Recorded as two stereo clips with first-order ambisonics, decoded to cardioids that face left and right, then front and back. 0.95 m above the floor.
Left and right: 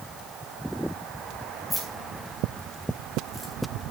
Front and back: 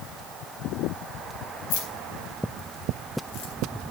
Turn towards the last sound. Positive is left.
turn(degrees=0)